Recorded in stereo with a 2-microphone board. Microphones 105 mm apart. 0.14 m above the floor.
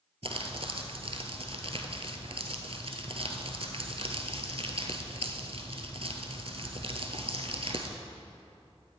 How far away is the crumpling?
About 1.1 m.